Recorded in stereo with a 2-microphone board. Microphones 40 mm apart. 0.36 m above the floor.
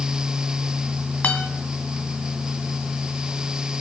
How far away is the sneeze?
I don't hear a sneeze.